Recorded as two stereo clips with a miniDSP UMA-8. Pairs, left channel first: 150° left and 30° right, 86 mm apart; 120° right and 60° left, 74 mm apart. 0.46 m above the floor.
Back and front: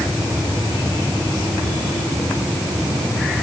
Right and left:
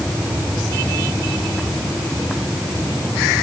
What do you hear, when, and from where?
Only background noise.